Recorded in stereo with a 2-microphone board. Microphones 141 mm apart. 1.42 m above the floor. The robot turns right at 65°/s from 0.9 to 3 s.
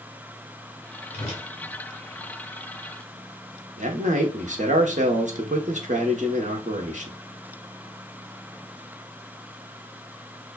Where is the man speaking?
60° right (ahead or behind), 1.0 m.